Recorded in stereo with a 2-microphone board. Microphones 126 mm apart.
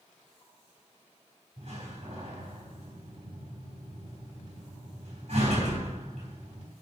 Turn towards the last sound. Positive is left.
turn(degrees=-60)  # may be behind; listen again after turning